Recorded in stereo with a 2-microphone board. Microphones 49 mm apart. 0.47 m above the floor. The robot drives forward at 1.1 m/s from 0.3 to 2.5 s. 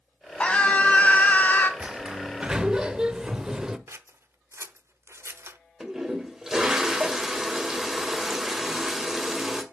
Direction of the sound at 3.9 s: 60° right (ahead or behind).